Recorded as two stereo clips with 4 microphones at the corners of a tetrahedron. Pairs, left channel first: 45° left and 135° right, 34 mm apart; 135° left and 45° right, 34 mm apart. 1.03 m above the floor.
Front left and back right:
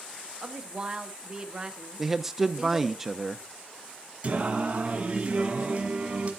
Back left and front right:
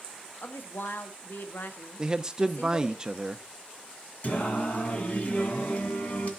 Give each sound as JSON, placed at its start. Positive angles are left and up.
{"t": 0.4, "sound": "a woman speaking", "azimuth_deg": 160, "distance_m": 1.1}
{"t": 2.0, "sound": "a man speaking", "azimuth_deg": -70, "distance_m": 0.6}
{"t": 4.2, "sound": "singing", "azimuth_deg": 180, "distance_m": 1.8}